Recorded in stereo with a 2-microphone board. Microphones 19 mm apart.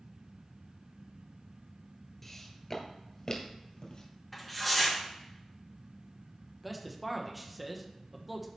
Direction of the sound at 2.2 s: 15° left (ahead or behind).